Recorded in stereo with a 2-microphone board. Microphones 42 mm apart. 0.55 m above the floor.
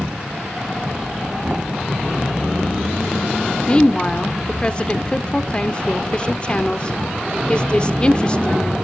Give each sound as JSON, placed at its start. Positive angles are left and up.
{"t": 3.7, "sound": "a woman speaking", "side_deg": 25, "distance_m": 1.1}